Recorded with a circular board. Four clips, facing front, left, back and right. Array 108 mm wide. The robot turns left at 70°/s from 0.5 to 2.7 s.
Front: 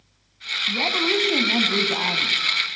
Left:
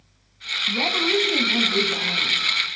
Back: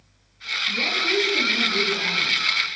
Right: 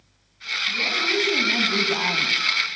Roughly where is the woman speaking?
Ahead left.